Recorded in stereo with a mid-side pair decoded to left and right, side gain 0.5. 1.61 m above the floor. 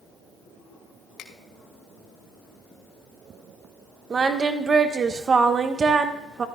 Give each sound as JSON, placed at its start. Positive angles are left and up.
{"t": 1.2, "sound": "a finger snap", "azimuth_deg": 70, "distance_m": 2.0}
{"t": 4.1, "sound": "singing", "azimuth_deg": -40, "distance_m": 1.5}